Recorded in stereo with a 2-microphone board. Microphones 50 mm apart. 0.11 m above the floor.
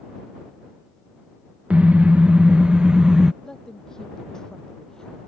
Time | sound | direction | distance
1.7 | a car horn | 25° right (ahead or behind) | ?
3.4 | a woman speaking | 10° left (ahead or behind) | ?